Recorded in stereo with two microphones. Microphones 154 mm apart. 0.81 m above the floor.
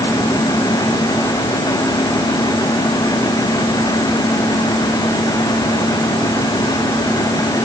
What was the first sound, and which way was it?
Only background noise.